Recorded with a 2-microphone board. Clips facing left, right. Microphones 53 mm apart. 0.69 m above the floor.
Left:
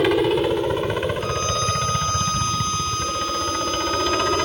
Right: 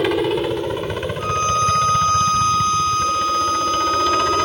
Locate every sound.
0.0 s a helicopter: 10° left (ahead or behind)
1.2 s a violin: 35° right (ahead or behind)